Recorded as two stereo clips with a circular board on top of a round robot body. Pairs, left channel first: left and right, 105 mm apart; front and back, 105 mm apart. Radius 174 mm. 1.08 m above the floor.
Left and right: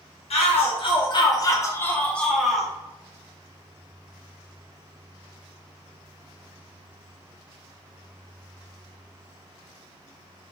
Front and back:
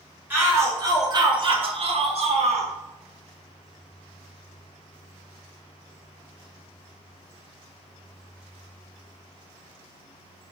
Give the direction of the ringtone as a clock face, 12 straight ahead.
No ringtone in this recording.